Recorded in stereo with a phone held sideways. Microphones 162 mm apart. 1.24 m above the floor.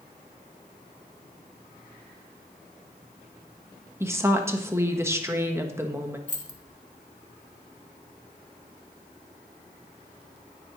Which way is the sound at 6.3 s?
50° left (ahead or behind).